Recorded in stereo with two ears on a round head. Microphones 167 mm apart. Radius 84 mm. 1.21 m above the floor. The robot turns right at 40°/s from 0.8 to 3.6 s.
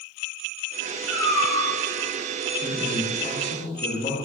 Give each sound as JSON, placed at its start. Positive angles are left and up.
{"t": 1.1, "sound": "a cat meowing", "side_deg": 5, "distance_m": 0.8}
{"t": 2.6, "sound": "a man speaking", "azimuth_deg": -5, "distance_m": 0.8}